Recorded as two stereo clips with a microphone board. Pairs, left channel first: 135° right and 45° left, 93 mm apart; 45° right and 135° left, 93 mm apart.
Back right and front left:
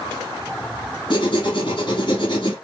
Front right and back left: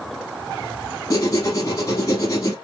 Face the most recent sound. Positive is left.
turn(degrees=-100)